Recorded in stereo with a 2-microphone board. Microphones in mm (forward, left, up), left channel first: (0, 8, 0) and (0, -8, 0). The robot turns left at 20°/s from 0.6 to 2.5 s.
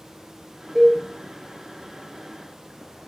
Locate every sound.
0.8 s a cowbell: 15° right (ahead or behind), 1.3 m